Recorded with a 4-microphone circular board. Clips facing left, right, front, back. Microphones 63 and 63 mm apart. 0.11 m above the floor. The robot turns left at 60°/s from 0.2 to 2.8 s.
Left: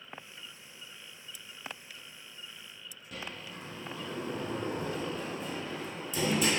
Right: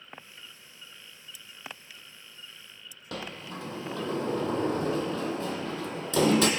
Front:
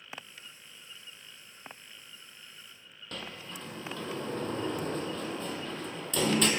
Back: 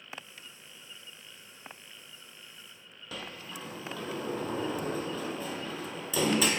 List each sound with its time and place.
3.1 s a sliding door: 95° right, 0.7 m